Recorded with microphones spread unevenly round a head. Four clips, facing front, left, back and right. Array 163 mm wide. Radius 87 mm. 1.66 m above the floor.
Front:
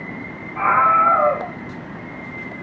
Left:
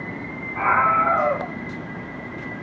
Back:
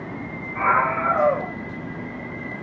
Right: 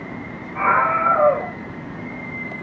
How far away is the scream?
About 2.5 m.